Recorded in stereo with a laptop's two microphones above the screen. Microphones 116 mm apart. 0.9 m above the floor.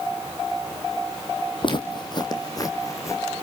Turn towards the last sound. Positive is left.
turn(degrees=25)  # may be behind; listen again after turning